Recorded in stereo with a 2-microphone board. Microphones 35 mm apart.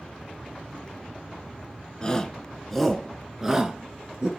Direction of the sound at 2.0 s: 25° left (ahead or behind).